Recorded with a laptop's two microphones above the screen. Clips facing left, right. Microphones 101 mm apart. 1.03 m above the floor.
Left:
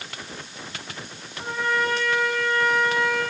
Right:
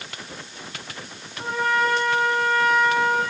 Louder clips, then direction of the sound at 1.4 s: Right 3 dB; 50° right (ahead or behind).